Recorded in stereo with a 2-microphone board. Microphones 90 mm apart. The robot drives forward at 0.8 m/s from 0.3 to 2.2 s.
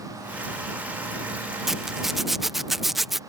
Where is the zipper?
5° right (ahead or behind); by 3.2 s centre (ahead or behind).